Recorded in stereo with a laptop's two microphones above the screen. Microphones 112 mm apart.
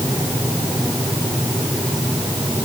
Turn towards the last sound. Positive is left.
No sound to turn to.